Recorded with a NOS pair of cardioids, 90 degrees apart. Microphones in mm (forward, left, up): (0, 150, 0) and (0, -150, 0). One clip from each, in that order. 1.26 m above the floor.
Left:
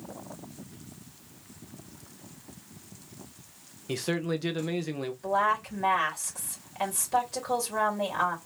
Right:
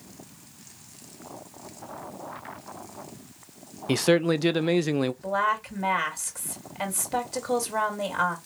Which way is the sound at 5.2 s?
25° right.